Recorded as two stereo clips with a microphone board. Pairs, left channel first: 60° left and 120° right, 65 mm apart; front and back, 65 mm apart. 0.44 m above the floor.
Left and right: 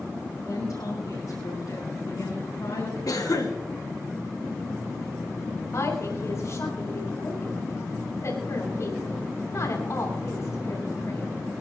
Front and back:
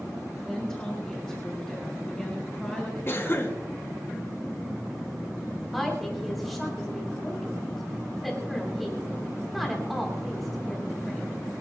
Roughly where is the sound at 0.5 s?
Left.